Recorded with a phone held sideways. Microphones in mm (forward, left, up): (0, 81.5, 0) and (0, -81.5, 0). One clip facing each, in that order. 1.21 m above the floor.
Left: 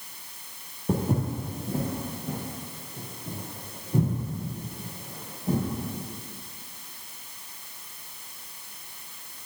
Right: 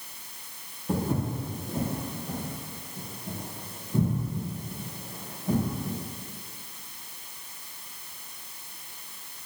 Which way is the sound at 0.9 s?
40° left (ahead or behind).